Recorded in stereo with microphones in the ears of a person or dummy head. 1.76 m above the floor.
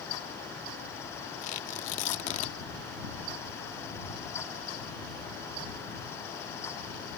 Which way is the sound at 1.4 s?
45° left (ahead or behind).